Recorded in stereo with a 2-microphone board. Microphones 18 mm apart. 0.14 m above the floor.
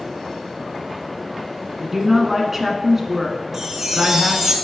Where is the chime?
20° right (ahead or behind), 1.0 m.